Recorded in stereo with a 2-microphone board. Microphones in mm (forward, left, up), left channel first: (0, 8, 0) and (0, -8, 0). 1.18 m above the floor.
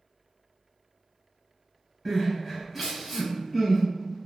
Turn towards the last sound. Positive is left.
turn(degrees=-10)  # may be behind; listen again after turning